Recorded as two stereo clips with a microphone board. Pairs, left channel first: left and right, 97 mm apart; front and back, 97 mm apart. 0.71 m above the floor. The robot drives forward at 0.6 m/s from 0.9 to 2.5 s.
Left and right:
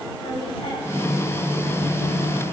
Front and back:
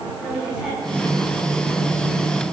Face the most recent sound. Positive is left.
turn(degrees=110)